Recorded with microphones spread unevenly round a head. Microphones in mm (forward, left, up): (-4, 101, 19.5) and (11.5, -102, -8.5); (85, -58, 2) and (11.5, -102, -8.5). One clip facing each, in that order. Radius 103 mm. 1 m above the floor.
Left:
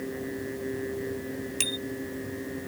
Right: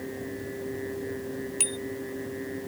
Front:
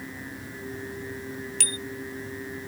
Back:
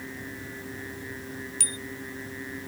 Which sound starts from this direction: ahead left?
A bicycle bell, at 1.6 s.